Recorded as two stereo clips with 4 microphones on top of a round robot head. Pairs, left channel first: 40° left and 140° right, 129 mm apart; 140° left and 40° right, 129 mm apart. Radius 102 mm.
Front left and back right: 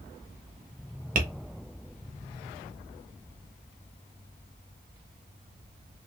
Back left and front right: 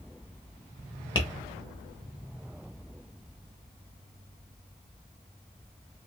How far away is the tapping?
About 0.9 m.